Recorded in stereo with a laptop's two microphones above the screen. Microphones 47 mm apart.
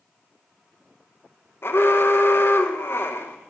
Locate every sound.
1.6 s an alarm: 50° left (ahead or behind), 0.7 m